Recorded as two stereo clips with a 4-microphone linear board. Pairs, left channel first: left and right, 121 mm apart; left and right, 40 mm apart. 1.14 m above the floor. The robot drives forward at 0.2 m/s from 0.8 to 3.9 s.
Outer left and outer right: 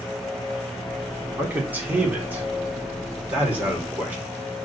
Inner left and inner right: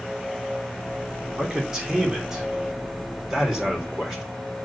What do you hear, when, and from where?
1.4 s a man speaking: 15° right (ahead or behind), 3 m